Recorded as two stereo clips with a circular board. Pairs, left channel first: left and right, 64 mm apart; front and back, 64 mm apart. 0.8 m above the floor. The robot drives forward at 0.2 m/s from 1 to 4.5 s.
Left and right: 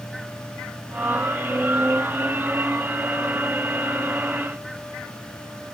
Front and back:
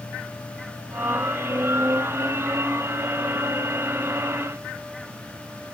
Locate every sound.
Only background noise.